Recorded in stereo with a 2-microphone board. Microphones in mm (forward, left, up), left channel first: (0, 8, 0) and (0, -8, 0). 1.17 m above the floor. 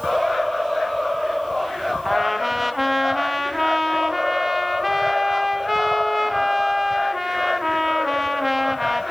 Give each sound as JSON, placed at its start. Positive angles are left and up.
{"t": 2.0, "sound": "a trumpet", "side_deg": -10, "distance_m": 0.9}